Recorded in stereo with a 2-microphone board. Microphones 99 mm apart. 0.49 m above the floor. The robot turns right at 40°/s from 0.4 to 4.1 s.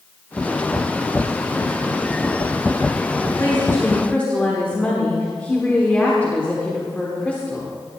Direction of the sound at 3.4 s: 30° left (ahead or behind).